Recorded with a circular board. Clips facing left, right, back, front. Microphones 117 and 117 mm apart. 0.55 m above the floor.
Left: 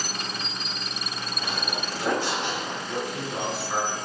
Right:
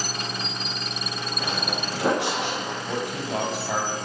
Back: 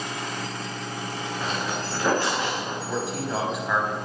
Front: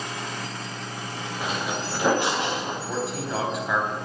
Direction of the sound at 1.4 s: 80° right.